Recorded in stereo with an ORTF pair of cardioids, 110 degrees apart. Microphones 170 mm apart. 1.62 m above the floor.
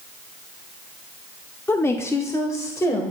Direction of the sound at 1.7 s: 15° left.